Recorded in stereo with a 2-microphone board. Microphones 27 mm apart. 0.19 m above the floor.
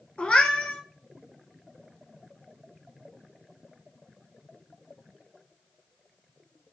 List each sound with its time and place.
0.2 s a cat meowing: 55° left (ahead or behind), 0.7 m